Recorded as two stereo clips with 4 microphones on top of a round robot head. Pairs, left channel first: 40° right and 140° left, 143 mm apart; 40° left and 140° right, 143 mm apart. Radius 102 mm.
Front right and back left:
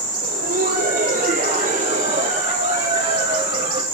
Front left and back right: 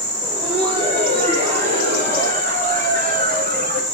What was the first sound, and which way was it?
Laughter, 165° left.